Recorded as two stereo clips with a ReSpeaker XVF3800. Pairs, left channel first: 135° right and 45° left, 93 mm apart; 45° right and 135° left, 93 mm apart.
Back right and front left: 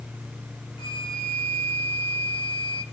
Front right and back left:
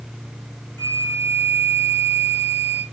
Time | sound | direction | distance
0.8 | a flute | 110° right | 1.4 m